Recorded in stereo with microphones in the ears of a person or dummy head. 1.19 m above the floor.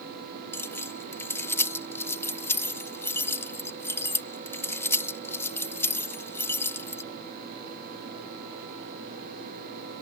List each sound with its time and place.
0.5 s keys jangling: 20° left (ahead or behind)